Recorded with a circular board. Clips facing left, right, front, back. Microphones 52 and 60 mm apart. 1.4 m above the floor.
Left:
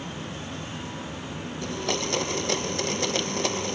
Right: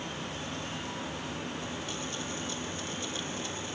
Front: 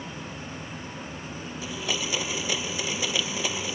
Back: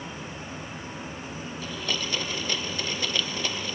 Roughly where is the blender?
Left.